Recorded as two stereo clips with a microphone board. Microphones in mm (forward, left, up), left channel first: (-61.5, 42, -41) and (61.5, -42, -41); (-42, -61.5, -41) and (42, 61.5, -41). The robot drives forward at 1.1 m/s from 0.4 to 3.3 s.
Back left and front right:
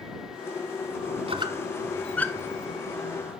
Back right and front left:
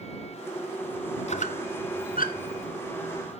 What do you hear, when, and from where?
1.3 s a squeak: 85° right, 0.9 m; by 2.7 s 145° right, 1.7 m